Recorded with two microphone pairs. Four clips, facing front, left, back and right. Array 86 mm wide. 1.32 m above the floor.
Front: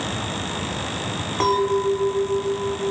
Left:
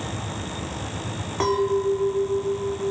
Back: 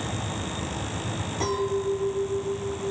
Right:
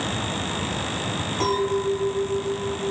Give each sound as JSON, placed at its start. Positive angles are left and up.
{"t": 1.4, "sound": "a clink", "azimuth_deg": 20, "distance_m": 1.4}